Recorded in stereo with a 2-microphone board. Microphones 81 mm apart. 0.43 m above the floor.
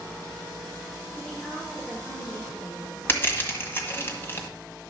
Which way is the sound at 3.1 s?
30° left (ahead or behind).